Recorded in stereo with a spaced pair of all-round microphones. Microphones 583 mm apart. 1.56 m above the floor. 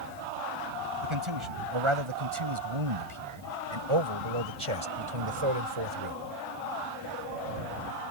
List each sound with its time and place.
1.0 s a man speaking: 55° right (ahead or behind); by 6.2 s 60° right (ahead or behind)